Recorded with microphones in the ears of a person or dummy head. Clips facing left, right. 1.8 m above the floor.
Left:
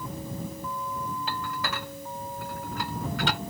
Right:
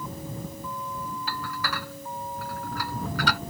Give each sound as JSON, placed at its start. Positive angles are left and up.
{"t": 1.3, "sound": "dishes clattering", "side_deg": 25}